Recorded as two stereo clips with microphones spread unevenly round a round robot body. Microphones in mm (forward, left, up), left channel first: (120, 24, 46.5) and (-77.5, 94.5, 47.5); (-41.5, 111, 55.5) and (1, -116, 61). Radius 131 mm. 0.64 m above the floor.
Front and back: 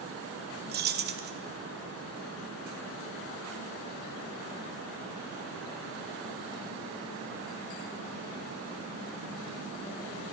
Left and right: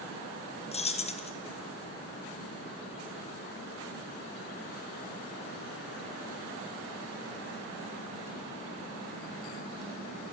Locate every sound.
0.7 s keys jangling: 155° left, 0.6 m